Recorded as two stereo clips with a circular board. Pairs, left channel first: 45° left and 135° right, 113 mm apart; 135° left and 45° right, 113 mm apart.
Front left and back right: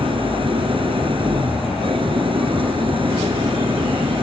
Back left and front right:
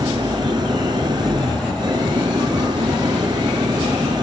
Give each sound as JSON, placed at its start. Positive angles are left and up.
{"t": 0.0, "sound": "an engine running", "azimuth_deg": -95}